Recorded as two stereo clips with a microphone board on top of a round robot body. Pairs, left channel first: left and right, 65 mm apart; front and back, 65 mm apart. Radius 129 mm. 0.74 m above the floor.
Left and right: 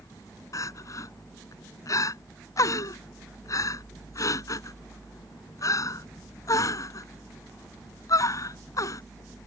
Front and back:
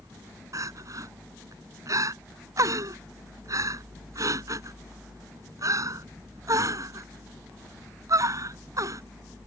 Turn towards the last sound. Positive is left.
turn(degrees=135)